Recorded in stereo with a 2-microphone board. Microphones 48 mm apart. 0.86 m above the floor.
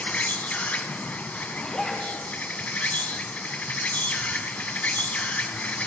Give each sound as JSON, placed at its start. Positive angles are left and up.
{"t": 0.0, "sound": "an insect", "side_deg": 35, "distance_m": 0.9}
{"t": 1.5, "sound": "a zipper", "side_deg": 15, "distance_m": 2.5}